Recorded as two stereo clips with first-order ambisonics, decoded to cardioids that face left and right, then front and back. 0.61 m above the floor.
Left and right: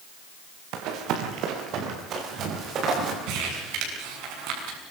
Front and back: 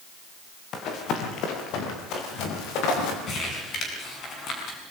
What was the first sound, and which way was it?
Running footsteps, 55° right.